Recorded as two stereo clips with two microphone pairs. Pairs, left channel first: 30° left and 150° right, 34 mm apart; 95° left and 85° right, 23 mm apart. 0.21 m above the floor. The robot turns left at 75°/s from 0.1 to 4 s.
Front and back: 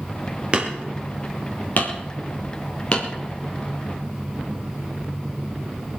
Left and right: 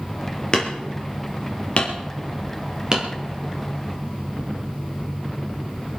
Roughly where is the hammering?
Behind left.